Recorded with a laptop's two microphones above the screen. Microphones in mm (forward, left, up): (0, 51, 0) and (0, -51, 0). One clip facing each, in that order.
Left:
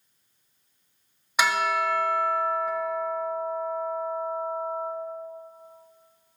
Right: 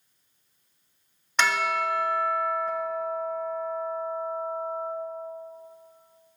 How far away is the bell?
About 1.2 m.